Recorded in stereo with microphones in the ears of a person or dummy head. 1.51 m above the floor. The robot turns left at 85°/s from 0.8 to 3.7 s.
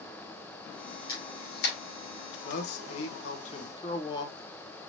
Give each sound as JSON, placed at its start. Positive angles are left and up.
{"t": 1.1, "sound": "a camera shutter", "side_deg": 20, "distance_m": 3.0}
{"t": 2.5, "sound": "a man speaking", "azimuth_deg": 135, "distance_m": 1.3}